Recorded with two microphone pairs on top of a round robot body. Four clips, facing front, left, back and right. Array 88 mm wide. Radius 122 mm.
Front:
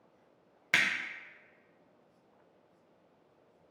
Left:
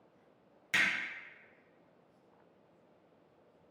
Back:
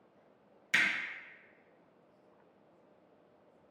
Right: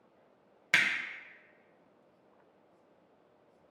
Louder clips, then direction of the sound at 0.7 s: Right 3 dB, front 1 dB; 45° right.